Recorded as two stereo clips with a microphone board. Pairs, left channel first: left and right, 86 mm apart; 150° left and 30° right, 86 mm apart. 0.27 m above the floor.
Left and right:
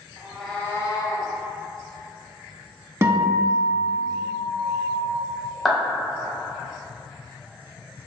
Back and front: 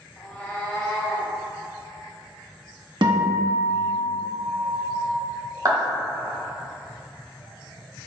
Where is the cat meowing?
140° right, 0.7 m; by 1.3 s 70° left, 1.0 m.